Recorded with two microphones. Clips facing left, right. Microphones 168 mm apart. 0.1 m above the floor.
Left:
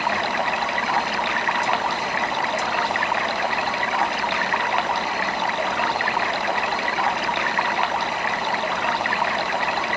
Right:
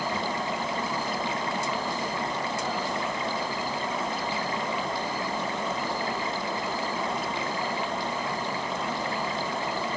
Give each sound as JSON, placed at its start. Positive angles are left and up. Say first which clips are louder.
{"t": 0.0, "sound": "running water", "louder": "left 5 dB", "side_deg": 75}